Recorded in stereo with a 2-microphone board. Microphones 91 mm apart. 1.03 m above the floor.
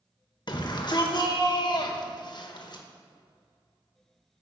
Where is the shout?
55° left (ahead or behind), 1.3 m.